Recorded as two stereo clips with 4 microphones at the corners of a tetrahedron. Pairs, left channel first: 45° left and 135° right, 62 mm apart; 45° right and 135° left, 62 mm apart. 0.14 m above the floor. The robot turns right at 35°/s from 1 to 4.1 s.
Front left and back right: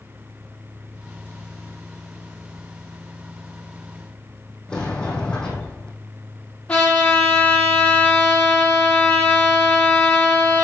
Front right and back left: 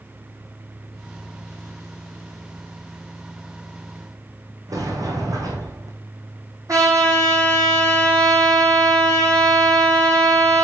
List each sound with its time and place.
4.7 s a sliding door: 120° left, 3 m
6.7 s a trumpet: 110° left, 6 m